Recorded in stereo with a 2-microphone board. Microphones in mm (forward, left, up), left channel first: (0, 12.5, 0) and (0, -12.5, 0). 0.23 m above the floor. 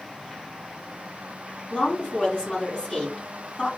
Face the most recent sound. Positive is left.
turn(degrees=40)  # may be behind; listen again after turning